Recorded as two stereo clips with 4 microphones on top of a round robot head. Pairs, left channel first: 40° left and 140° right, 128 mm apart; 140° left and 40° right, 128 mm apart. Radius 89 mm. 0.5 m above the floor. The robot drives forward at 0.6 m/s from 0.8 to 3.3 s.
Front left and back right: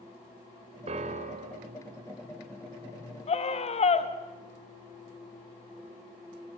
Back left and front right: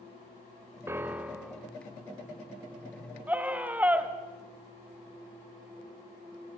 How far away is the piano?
About 1.1 m.